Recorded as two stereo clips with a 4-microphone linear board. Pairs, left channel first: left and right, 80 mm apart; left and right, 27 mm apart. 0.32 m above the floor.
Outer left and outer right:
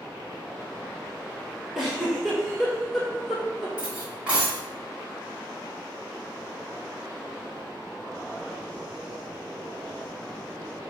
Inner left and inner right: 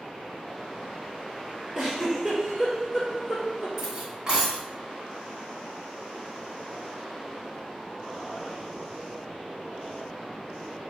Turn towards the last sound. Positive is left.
turn(degrees=-15)  # may be behind; listen again after turning